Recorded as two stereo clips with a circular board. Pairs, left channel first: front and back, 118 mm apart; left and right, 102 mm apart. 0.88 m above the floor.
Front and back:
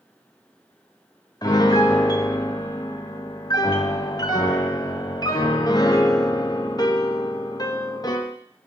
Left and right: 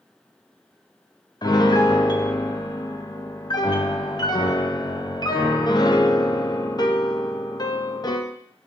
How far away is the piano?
About 0.7 m.